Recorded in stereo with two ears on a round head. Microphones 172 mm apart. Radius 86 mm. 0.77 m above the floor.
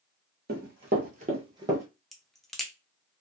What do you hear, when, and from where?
0.5 s running footsteps: 55° right (ahead or behind), 1.3 m; by 1.9 s 15° right (ahead or behind), 1.2 m
2.1 s a crack: centre (ahead or behind), 0.5 m